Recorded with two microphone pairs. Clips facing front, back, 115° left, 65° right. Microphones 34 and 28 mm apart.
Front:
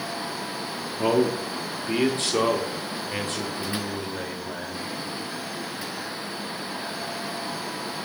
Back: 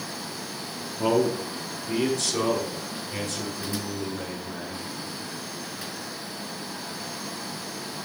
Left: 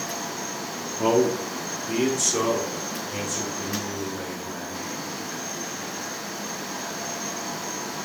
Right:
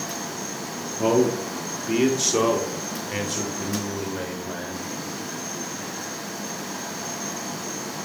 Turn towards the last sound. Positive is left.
turn(degrees=-40)